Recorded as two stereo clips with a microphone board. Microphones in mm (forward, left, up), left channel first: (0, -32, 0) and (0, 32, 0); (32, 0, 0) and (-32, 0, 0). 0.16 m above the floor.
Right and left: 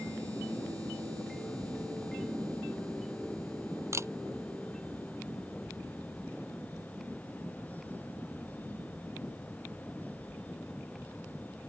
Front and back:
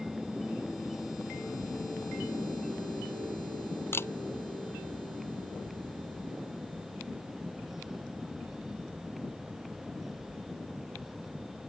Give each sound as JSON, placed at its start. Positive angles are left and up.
{"t": 3.9, "sound": "a camera shutter", "azimuth_deg": 50}